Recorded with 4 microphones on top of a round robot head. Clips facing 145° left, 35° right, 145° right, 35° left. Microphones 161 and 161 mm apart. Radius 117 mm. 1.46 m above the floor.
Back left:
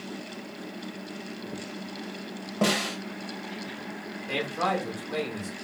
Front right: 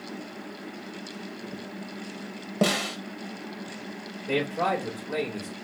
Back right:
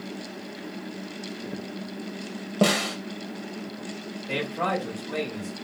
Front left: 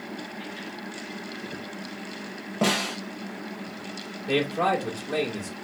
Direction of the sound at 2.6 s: 95° right.